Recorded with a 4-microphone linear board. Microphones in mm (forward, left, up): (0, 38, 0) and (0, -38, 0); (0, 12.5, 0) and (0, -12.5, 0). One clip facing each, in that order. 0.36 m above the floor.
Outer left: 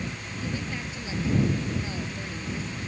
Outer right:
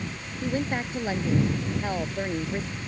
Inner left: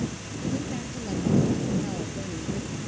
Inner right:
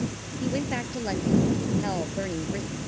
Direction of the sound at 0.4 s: 50° right (ahead or behind).